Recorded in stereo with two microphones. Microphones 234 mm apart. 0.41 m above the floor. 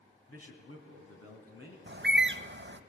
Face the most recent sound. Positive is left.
turn(degrees=-50)  # may be behind; listen again after turning